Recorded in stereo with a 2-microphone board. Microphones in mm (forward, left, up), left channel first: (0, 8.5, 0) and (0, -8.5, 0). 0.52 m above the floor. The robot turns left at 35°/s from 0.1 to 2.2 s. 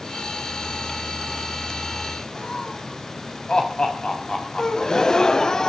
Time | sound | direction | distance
2.4 | laughter | 55° left (ahead or behind) | 4.5 m
4.6 | a gasp | 45° left (ahead or behind) | 0.9 m